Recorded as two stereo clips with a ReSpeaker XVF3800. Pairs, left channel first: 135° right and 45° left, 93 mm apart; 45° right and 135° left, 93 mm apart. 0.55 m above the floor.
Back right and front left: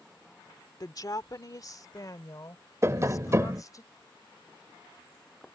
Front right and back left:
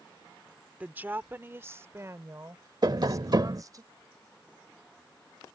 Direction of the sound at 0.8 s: 160° right.